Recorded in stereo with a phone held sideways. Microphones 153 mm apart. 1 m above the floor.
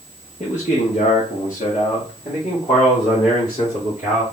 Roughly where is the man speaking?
Left.